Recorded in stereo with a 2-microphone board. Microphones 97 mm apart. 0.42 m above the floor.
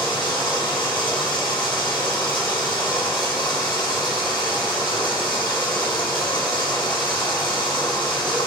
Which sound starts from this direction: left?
Running water, at 0.0 s.